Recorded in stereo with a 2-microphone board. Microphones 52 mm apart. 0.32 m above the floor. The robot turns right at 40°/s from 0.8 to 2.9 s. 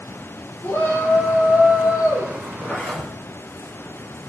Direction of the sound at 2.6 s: 40° left (ahead or behind).